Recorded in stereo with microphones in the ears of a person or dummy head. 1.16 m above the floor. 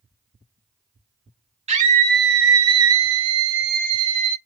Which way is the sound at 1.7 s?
35° right (ahead or behind).